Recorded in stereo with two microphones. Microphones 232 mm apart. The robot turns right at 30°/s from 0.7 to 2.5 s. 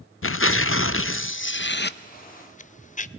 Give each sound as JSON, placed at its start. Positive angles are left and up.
{"t": 0.2, "sound": "tearing paper", "azimuth_deg": 90, "distance_m": 0.5}